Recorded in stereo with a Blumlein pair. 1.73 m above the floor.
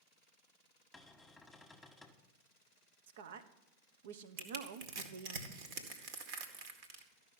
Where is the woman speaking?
55° right, 1.1 m.